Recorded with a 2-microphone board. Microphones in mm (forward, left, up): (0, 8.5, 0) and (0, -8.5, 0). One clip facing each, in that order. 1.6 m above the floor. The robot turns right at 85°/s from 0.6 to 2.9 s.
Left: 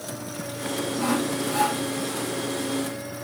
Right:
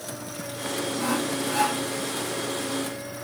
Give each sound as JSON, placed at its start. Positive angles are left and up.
{"t": 1.0, "sound": "sawing", "azimuth_deg": 140, "distance_m": 1.3}